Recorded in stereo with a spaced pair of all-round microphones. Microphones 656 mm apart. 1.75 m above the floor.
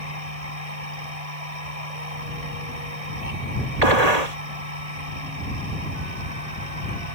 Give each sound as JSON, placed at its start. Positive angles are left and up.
{"t": 0.0, "sound": "a machine running", "side_deg": -60}
{"t": 3.8, "sound": "a gunshot", "side_deg": -70}